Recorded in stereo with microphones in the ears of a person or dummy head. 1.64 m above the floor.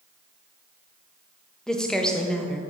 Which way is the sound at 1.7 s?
Centre (ahead or behind).